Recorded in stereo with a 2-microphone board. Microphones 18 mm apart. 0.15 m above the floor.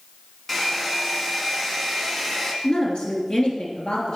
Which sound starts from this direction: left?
A woman speaking, at 2.6 s.